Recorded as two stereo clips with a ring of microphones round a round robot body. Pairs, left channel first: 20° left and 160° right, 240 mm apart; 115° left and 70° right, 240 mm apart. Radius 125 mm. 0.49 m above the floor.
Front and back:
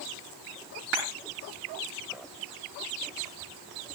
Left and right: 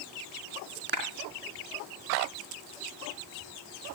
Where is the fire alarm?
I don't hear a fire alarm.